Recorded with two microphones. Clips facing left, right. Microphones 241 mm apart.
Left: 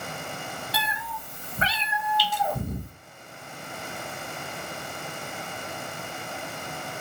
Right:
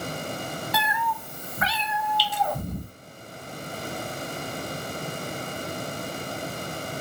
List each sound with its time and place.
0.7 s a cat meowing: 35° left (ahead or behind), 0.7 m; by 2.9 s 5° left (ahead or behind), 1.3 m
2.2 s dripping: 50° left (ahead or behind), 1.4 m